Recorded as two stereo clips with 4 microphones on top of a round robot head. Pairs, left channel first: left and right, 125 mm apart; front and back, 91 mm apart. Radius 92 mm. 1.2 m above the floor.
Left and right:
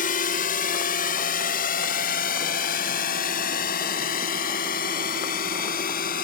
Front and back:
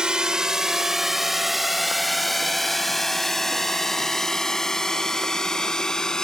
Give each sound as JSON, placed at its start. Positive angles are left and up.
{"t": 0.0, "sound": "a drone", "azimuth_deg": 95}